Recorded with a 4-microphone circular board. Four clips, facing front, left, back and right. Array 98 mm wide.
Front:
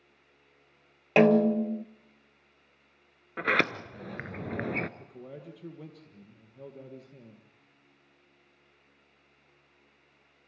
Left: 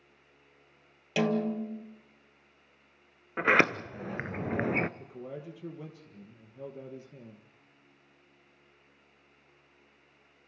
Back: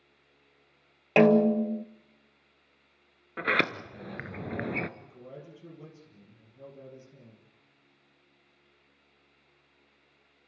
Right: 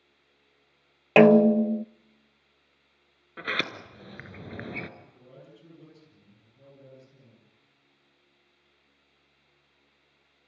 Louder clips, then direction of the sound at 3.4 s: Left 8 dB, even; 85° left.